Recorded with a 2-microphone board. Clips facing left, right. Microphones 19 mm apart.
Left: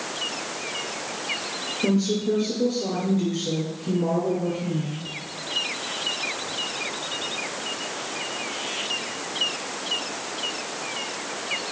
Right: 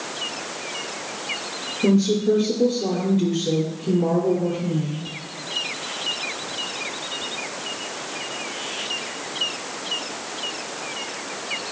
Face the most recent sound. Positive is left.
turn(degrees=-10)  # may be behind; listen again after turning